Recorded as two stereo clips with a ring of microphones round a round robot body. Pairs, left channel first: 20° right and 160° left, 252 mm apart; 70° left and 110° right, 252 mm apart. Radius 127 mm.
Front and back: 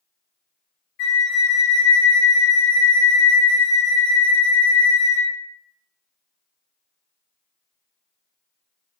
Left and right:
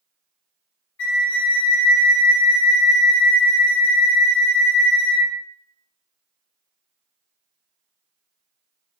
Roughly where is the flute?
Ahead left.